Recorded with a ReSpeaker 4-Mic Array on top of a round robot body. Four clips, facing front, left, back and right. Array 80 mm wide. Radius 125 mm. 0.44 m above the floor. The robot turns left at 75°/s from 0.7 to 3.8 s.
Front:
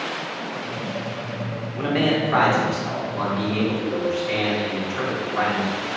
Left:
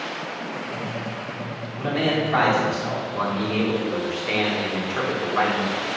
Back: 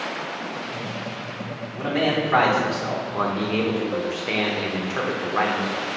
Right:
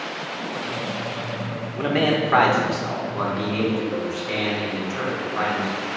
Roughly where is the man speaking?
Ahead right.